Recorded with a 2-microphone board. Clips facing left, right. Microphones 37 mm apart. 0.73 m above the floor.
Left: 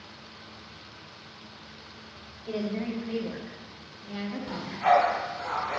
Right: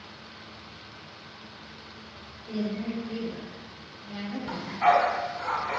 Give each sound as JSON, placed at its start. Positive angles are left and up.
{"t": 2.5, "sound": "a woman speaking", "side_deg": 60, "distance_m": 1.4}
{"t": 4.5, "sound": "a dog barking", "side_deg": -60, "distance_m": 1.4}